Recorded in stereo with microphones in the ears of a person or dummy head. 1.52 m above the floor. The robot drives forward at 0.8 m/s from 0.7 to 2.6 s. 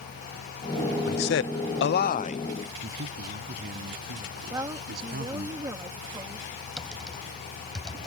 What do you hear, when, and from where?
1.0 s a man speaking: 45° left (ahead or behind); by 2.5 s 35° left (ahead or behind)
2.8 s a man speaking: 55° right (ahead or behind)
4.5 s a woman speaking: 20° right (ahead or behind)
6.8 s typing on a keyboard: centre (ahead or behind)